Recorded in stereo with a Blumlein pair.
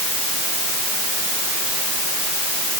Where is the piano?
I don't hear a piano.